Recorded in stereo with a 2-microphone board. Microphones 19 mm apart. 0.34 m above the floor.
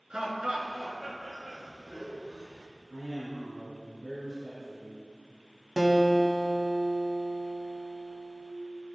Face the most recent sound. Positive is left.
turn(degrees=-5)  # may be behind; listen again after turning